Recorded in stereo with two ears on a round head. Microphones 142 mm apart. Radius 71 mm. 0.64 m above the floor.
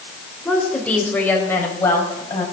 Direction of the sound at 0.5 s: 5° left (ahead or behind).